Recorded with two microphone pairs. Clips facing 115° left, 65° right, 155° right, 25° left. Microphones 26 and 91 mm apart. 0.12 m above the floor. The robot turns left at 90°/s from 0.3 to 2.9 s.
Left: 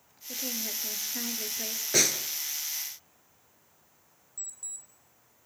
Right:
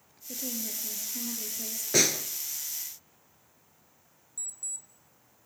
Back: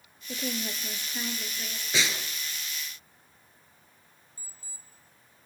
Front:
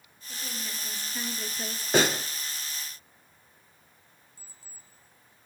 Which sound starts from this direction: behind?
A woman speaking, at 0.3 s.